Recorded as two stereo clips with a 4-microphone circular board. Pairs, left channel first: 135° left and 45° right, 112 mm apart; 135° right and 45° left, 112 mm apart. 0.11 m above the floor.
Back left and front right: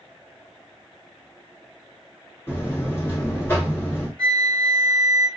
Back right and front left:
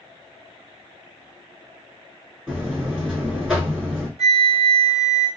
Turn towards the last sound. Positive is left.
turn(degrees=55)